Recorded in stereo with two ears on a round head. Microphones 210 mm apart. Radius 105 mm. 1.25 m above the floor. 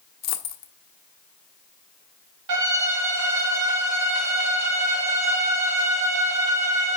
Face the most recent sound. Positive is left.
turn(degrees=-80)